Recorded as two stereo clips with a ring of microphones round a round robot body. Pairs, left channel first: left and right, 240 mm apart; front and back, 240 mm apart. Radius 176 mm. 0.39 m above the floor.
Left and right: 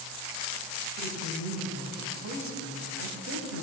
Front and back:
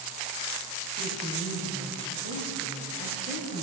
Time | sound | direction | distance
1.0 | a woman speaking | 70° right | 3 m